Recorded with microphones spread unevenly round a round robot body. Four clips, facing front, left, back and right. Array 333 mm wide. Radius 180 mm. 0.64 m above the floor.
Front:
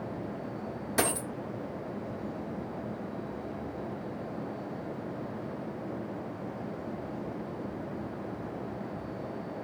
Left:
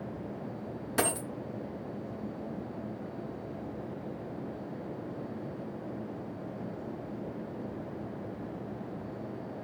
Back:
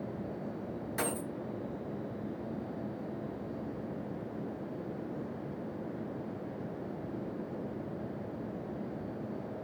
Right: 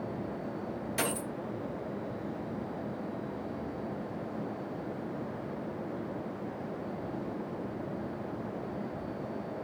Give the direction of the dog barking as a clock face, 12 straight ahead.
No dog barking in this recording.